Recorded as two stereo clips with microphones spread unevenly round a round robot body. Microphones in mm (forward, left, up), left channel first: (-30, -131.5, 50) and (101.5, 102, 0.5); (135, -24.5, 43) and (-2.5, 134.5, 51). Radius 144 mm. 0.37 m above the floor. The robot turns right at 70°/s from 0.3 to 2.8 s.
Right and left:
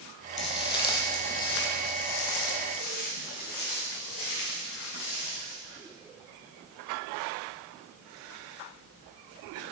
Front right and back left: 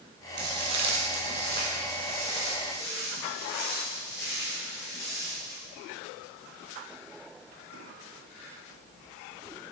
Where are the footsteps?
Straight behind, 0.6 m; by 5.5 s 110° right, 3.5 m.